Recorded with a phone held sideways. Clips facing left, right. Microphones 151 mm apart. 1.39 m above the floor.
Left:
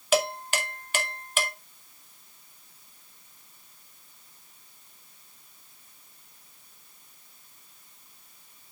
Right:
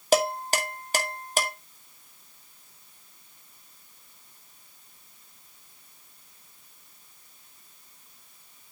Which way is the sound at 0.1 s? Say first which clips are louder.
Right 2 dB; 40° right (ahead or behind).